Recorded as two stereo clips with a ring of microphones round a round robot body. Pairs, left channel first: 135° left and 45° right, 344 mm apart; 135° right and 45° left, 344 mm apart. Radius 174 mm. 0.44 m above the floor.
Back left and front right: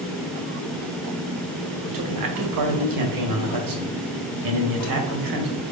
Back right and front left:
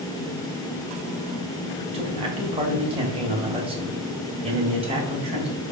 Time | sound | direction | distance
1.9 | a man speaking | 30° right | 2 m